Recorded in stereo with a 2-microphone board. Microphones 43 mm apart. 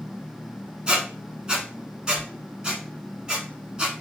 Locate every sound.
0.9 s a squeak: 20° right (ahead or behind), 0.7 m